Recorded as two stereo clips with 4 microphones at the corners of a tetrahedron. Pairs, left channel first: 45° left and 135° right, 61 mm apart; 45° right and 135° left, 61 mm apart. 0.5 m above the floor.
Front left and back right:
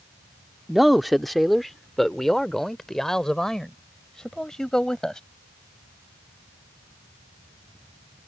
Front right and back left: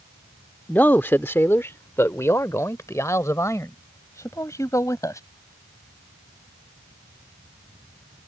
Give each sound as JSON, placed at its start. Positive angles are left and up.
{"t": 0.7, "sound": "a man speaking", "azimuth_deg": -50}